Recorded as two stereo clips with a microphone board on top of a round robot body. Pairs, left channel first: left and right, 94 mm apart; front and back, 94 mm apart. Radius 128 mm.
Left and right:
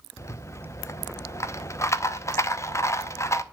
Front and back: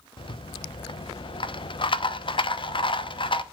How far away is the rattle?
About 0.8 m.